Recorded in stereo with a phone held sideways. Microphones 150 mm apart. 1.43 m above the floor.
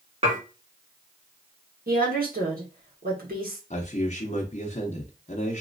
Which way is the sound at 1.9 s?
80° right.